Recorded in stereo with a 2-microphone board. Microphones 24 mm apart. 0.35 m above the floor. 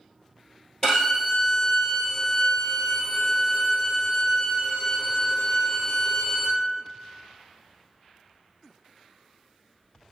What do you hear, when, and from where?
0.8 s a violin: 25° left (ahead or behind), 1.8 m